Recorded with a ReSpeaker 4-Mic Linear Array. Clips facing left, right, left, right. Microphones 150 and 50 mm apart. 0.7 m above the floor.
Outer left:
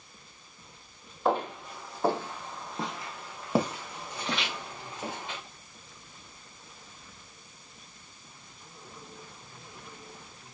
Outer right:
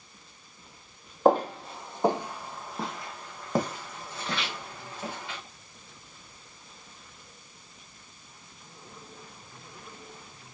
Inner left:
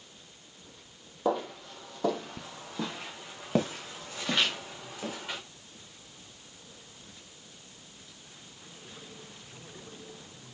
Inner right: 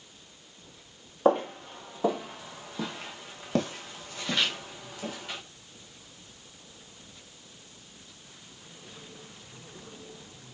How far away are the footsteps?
About 1.2 m.